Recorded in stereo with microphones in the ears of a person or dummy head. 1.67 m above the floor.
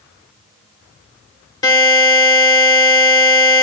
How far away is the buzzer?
About 3.5 m.